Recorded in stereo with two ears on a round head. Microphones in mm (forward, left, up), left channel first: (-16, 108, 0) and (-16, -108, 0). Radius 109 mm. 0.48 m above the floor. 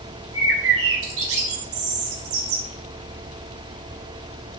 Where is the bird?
65° right (ahead or behind), 2.5 m.